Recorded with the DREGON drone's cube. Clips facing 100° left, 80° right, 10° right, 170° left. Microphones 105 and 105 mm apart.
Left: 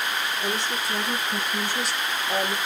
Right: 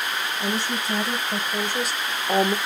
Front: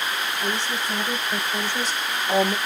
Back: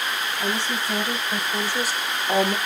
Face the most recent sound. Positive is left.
turn(degrees=-105)